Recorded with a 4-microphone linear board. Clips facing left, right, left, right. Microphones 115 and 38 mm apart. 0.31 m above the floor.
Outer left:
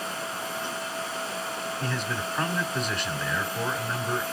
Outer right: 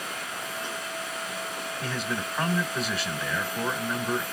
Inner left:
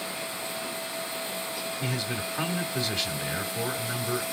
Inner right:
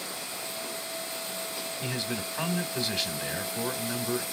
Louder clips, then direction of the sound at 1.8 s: Outer right 1 dB, inner left 1 dB; 5° right (ahead or behind).